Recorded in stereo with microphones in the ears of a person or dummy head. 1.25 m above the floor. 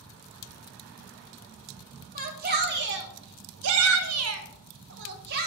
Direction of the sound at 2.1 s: 45° right (ahead or behind).